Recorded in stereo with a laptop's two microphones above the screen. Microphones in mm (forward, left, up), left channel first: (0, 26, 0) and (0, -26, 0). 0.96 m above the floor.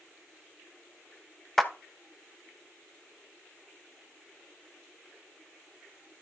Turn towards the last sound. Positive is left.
turn(degrees=5)  # may be behind; listen again after turning